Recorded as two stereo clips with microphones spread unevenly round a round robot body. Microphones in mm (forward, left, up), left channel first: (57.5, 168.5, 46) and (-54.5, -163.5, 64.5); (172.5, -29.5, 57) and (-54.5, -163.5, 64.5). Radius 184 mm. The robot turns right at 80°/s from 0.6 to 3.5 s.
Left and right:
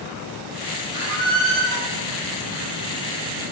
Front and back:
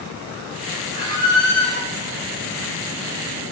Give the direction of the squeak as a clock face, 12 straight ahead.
4 o'clock.